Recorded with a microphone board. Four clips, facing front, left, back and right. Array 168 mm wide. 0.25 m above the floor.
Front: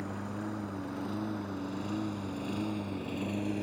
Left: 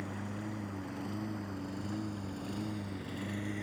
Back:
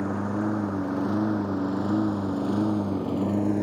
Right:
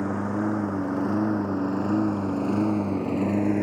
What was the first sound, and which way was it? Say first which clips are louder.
A lawn mower: right 15 dB, back 11 dB; 125° right.